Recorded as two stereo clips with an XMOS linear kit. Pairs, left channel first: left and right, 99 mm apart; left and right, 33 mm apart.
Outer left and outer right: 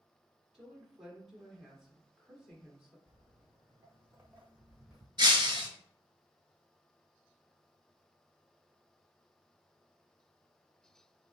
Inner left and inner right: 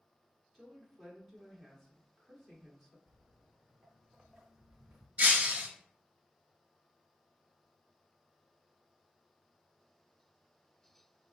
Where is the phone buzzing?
I don't hear a phone buzzing.